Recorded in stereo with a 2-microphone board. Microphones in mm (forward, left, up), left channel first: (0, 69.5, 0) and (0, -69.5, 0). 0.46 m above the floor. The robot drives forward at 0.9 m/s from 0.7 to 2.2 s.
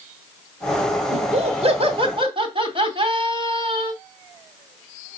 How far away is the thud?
I don't hear a thud.